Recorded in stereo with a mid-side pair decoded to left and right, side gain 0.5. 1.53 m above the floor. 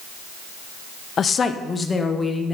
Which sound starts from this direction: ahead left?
A woman speaking, at 1.2 s.